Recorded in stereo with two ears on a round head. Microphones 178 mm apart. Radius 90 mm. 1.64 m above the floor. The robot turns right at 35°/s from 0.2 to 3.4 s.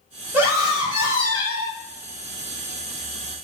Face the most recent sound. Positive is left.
turn(degrees=-65)